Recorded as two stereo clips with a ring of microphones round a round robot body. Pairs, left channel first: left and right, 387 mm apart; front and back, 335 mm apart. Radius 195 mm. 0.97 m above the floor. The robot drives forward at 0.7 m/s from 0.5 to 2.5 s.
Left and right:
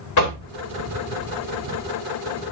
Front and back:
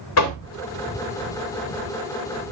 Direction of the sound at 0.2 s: 45° left.